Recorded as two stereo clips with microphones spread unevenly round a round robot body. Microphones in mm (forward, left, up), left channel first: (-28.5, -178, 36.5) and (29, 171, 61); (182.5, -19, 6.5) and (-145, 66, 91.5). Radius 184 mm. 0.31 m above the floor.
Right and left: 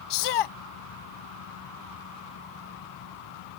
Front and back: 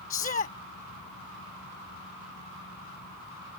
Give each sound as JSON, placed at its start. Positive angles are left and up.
{"t": 0.1, "sound": "a shout", "azimuth_deg": -85}